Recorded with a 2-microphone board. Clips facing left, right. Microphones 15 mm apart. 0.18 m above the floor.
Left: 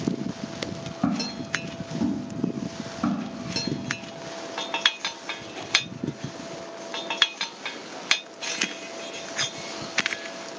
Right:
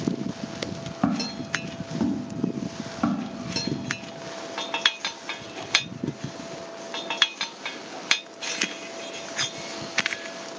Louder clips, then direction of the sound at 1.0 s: Right 1 dB; 45° right (ahead or behind).